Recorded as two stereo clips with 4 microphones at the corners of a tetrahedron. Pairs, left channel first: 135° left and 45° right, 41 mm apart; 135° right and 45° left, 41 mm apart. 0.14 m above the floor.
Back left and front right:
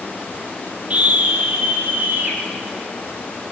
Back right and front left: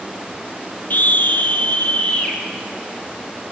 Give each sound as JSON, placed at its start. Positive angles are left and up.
{"t": 0.9, "sound": "a scream", "azimuth_deg": -100, "distance_m": 4.5}